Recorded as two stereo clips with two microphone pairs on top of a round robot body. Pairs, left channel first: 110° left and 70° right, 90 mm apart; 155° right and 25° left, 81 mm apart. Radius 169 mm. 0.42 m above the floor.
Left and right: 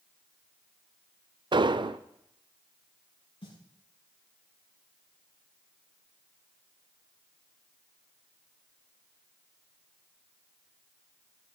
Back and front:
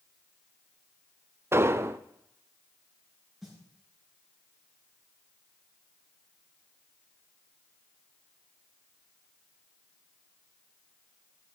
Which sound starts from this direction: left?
A snare drum, at 3.4 s.